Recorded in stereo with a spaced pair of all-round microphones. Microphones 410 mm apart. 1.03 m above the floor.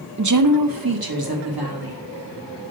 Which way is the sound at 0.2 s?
45° right (ahead or behind).